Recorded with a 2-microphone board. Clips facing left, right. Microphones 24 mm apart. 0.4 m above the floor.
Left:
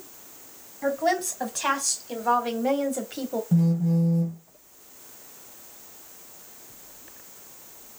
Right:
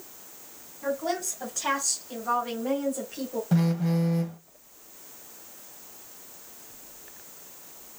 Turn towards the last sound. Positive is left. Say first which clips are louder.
# left 2 dB
turn(degrees=-60)  # may be behind; listen again after turning